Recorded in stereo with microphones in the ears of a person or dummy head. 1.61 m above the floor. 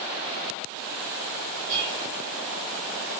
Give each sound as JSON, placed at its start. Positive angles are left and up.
{"t": 1.7, "sound": "dishes clattering", "side_deg": -40, "distance_m": 3.0}